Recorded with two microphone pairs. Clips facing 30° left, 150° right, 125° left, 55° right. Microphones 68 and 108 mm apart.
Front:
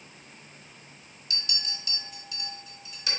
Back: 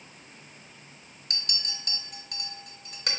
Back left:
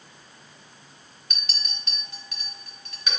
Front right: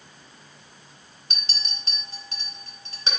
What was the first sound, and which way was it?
A clink, 115° right.